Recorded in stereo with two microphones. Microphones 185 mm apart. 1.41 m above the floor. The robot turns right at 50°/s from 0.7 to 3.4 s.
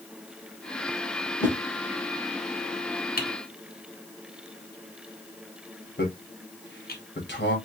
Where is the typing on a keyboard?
55° left (ahead or behind), 1.5 m.